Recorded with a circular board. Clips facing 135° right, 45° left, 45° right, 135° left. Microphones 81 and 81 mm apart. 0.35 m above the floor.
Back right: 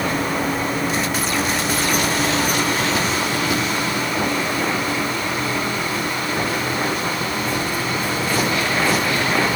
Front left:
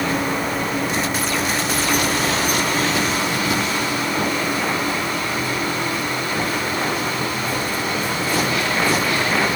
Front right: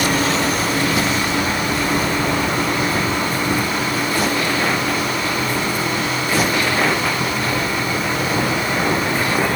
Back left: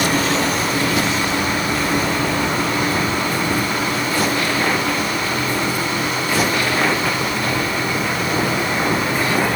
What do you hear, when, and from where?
Only background noise.